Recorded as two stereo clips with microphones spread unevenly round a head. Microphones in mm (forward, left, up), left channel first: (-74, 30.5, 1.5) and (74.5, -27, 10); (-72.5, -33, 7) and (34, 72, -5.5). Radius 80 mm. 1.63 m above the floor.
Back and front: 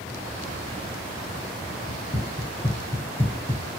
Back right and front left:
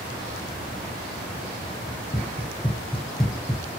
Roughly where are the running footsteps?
Behind right.